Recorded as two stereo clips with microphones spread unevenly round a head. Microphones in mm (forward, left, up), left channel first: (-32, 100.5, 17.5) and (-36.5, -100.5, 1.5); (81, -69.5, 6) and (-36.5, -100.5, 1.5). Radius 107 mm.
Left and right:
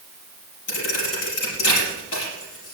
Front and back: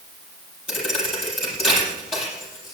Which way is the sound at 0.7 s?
75° left.